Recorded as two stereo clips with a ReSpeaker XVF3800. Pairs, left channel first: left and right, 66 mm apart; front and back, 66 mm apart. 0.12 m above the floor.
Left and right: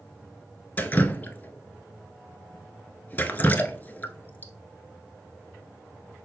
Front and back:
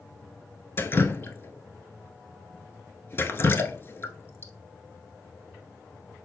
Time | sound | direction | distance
0.8 | dripping | 35° left | 0.8 m